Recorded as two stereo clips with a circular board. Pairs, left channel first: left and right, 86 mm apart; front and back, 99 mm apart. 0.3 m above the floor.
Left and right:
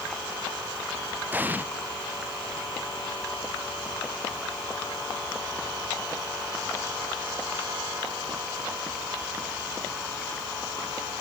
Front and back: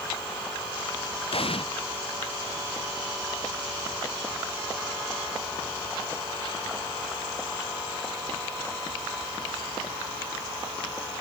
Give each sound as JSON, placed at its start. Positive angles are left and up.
{"t": 1.3, "sound": "an explosion", "azimuth_deg": -20}